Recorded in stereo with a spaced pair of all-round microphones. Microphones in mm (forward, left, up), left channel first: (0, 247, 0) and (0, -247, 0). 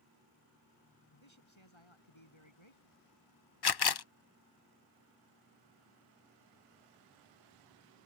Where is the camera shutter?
55° left (ahead or behind).